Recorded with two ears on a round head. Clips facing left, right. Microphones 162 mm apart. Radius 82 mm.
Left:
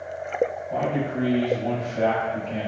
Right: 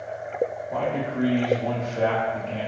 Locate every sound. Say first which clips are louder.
0.7 s a man speaking: left 1 dB; 25° left (ahead or behind), 0.9 m